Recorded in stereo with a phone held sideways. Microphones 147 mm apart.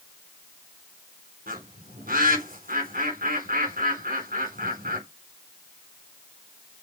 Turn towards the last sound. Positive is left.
turn(degrees=-75)  # may be behind; listen again after turning